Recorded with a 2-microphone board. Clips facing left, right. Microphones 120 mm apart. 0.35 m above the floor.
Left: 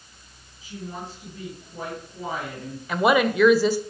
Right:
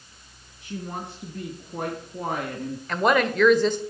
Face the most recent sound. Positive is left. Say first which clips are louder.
# left 2 dB
turn(degrees=5)  # may be behind; listen again after turning